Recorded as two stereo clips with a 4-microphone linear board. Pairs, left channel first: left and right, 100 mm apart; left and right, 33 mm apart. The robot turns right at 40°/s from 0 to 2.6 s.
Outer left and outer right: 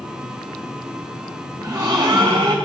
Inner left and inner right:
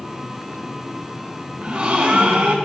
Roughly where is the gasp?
Behind right.